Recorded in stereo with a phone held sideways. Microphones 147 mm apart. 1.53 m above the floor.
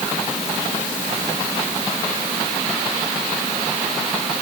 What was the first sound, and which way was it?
Only background noise.